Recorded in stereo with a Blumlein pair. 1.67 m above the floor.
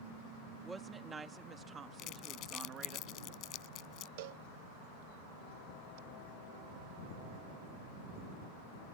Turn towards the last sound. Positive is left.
turn(degrees=-50)